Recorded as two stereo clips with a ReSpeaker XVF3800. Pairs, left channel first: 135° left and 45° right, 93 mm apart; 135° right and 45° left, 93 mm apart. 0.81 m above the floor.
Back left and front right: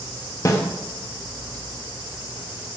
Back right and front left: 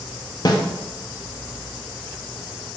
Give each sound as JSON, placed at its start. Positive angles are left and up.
{"t": 0.5, "sound": "a snare drum", "azimuth_deg": -175, "distance_m": 0.6}